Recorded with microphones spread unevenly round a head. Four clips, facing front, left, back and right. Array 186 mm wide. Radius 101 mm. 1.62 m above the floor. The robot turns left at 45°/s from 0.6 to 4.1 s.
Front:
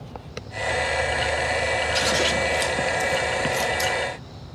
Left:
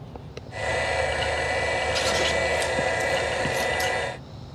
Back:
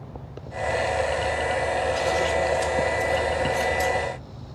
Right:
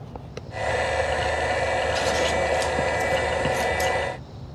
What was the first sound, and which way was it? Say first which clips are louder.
Scissors: right 2 dB, back 1 dB; 25° left.